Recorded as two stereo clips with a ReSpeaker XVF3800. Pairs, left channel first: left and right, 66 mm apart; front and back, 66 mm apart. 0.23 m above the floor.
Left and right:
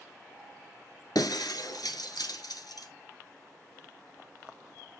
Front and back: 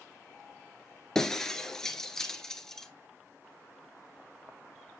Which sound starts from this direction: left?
Breaking glass, at 1.1 s.